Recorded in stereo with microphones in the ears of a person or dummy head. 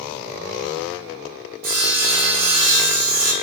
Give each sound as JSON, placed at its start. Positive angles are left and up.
{"t": 1.6, "sound": "sawing", "side_deg": -70, "distance_m": 0.9}